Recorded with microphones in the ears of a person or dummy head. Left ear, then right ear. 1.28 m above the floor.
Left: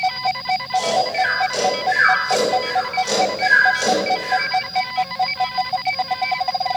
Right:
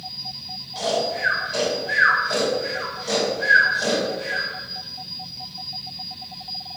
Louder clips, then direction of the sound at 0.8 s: Left 4 dB; 60° left (ahead or behind).